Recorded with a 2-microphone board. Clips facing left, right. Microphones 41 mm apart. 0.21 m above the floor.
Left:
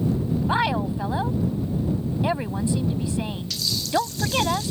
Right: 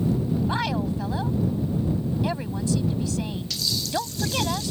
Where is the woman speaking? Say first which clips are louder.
Left 3 dB; 20° left (ahead or behind).